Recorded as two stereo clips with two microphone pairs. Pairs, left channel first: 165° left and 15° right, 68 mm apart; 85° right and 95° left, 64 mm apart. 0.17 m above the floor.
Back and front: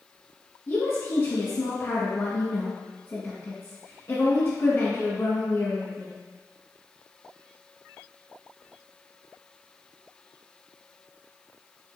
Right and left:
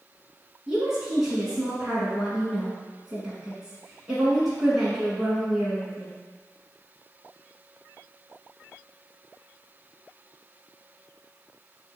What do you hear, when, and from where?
0.7 s a woman speaking: 170° left, 1.4 m